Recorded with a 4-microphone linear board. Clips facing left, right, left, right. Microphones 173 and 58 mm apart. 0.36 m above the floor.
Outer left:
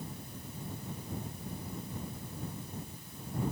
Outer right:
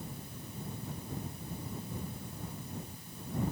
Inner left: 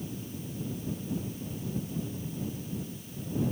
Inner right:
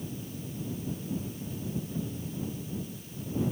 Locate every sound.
Only background noise.